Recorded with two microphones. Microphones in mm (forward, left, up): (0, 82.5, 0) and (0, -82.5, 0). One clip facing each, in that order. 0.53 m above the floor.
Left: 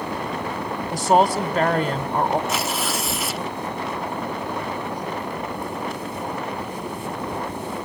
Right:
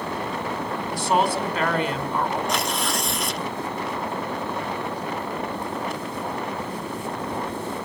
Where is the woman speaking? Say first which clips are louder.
Left 5 dB; 40° left (ahead or behind), 2 m.